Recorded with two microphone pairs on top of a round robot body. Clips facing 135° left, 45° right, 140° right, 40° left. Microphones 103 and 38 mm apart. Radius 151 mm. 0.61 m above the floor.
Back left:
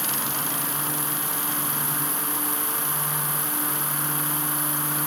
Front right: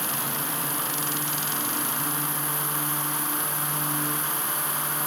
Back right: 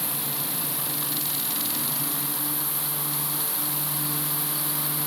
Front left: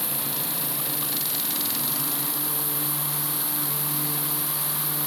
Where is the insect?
130° left, 4.5 m.